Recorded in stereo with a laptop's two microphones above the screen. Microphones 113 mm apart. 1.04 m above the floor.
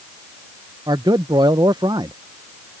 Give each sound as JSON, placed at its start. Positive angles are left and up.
{"t": 0.9, "sound": "a man speaking", "side_deg": -40}